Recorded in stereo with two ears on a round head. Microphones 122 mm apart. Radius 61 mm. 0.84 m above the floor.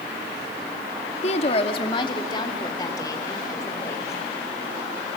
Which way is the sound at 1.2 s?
50° left (ahead or behind).